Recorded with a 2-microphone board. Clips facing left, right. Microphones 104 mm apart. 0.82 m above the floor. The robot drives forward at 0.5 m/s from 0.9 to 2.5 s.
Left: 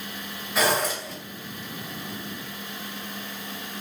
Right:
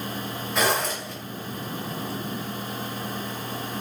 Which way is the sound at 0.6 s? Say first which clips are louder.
Left 1 dB; centre (ahead or behind).